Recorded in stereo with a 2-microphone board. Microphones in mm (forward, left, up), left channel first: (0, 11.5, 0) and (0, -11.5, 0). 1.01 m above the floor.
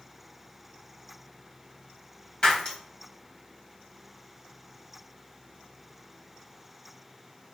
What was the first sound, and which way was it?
Breaking glass, 35° left (ahead or behind).